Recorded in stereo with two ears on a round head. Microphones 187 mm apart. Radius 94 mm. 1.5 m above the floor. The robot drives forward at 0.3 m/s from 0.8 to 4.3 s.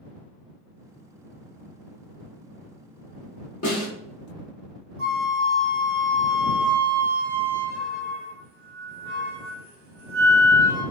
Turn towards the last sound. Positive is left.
turn(degrees=-50)  # may be behind; listen again after turning